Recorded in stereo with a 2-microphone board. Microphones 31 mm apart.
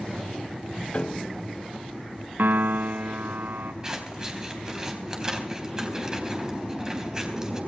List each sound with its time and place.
0.9 s a piano: 40° left (ahead or behind), 1.0 m
2.4 s a piano: 70° right (ahead or behind), 0.9 m
3.8 s scissors: 20° right (ahead or behind), 3.5 m